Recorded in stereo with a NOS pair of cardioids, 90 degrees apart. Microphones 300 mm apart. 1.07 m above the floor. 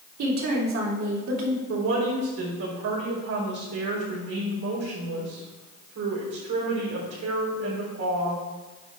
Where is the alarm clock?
No alarm clock in this recording.